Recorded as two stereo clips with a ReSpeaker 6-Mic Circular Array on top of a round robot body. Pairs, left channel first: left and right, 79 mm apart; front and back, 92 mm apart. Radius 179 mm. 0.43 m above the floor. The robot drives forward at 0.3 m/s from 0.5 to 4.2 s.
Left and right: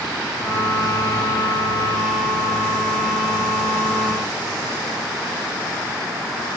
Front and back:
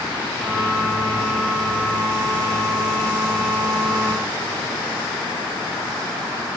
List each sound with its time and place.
Only background noise.